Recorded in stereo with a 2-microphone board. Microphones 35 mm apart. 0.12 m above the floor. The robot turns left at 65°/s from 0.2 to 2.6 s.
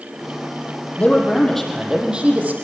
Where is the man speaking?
45° left, 5.5 m; by 2.5 s 55° right, 5.5 m.